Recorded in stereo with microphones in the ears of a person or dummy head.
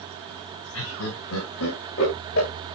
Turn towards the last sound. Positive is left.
turn(degrees=70)  # may be behind; listen again after turning